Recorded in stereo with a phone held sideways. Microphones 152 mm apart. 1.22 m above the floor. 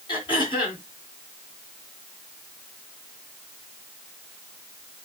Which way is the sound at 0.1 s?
35° left (ahead or behind).